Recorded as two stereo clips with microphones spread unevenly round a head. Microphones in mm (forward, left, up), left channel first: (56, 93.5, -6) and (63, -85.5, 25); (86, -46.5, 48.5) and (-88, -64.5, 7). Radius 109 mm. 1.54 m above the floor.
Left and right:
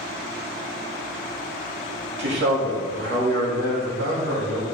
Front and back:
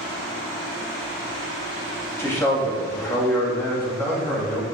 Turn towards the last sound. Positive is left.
turn(degrees=-70)